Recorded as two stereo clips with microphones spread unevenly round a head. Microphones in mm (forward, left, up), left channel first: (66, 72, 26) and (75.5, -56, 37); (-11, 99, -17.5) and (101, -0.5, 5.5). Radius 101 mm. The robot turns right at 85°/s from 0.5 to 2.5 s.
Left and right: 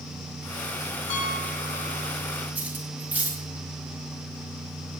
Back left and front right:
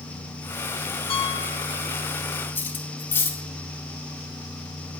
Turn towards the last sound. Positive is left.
turn(degrees=-145)